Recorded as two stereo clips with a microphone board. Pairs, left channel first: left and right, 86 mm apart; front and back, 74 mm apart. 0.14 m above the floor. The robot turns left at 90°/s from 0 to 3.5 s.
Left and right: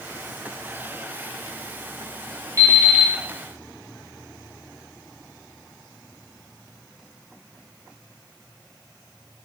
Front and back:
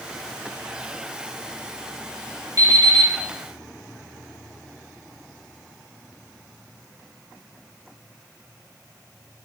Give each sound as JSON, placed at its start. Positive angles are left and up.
{"t": 2.6, "sound": "an alarm clock", "azimuth_deg": -145, "distance_m": 1.3}